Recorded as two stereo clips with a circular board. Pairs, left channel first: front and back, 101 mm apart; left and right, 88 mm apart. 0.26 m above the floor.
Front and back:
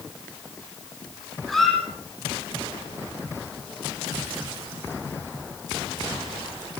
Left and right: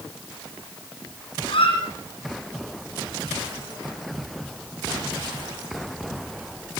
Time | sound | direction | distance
1.5 | a squeak | 90° left | 6.5 m